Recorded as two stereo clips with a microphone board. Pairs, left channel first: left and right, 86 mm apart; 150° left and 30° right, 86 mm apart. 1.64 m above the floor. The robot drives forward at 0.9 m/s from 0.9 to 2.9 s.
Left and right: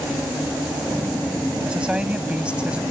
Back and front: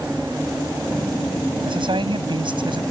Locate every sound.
1.6 s a man speaking: 10° right; by 2.8 s 15° right